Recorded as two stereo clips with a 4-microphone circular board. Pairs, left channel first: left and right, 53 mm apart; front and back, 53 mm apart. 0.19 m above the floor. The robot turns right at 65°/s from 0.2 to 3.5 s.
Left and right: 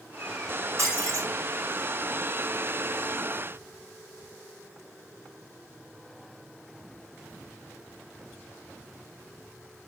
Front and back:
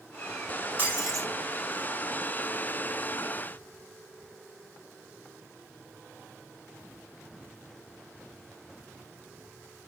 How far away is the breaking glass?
About 5 m.